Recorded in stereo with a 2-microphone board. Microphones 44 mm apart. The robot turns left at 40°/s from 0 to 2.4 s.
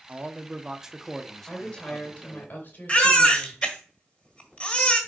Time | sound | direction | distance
0.1 | a man speaking | 140° right | 0.9 m
1.5 | a woman speaking | 175° left | 3 m
2.9 | a baby crying | 25° left (ahead or behind) | 1.9 m